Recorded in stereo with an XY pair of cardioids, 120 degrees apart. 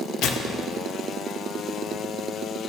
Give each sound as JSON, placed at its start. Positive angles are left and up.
{"t": 0.2, "sound": "tearing paper", "azimuth_deg": 65, "distance_m": 0.9}